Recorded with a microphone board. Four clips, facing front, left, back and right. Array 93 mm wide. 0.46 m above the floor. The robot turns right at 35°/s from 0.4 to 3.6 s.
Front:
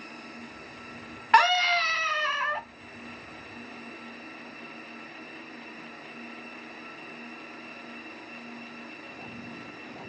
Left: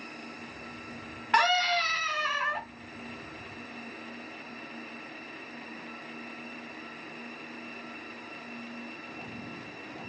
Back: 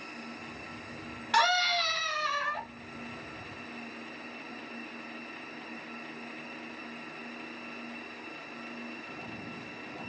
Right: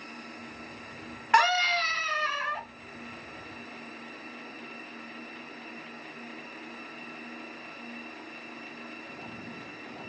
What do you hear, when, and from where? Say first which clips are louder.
1.3 s a scream: right 2 dB, front 6 dB; 15° right, 1.3 m; by 2.6 s 30° left, 1.3 m